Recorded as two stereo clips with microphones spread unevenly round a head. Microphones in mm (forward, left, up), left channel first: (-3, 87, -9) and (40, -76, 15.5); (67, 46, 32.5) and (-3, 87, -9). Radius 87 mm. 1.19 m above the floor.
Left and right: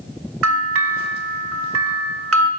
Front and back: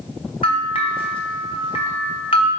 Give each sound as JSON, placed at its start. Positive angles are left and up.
{"t": 0.4, "sound": "a bell", "azimuth_deg": -80, "distance_m": 0.8}